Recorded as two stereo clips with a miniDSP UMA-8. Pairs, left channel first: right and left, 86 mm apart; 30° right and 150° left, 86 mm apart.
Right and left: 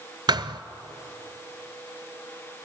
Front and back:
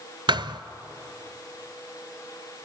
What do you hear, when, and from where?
0.3 s a thud: 125° left, 0.6 m